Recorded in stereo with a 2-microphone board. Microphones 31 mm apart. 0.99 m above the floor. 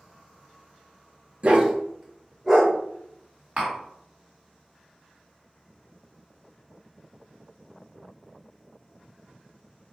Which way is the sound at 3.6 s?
55° right (ahead or behind).